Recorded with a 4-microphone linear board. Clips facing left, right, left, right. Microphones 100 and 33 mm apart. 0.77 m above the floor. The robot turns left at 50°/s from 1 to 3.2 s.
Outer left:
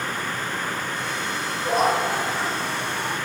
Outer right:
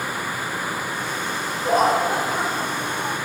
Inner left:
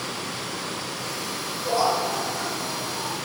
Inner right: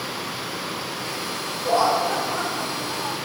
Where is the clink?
No clink in this recording.